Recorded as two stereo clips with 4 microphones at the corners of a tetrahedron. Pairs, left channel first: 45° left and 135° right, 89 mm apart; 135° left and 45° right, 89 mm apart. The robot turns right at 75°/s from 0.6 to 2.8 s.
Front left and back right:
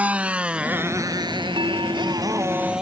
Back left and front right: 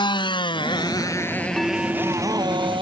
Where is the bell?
140° right; by 2.7 s 50° right.